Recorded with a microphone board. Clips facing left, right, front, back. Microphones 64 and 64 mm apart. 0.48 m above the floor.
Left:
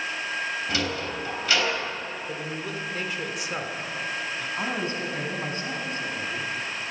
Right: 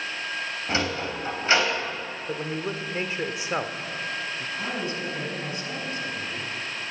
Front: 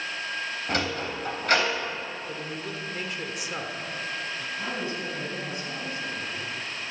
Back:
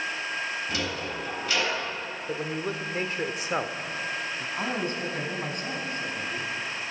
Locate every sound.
0.7 s a sliding door: 35° right, 3.5 m
2.3 s a man speaking: 140° right, 1.2 m
4.6 s a man speaking: 140° left, 4.5 m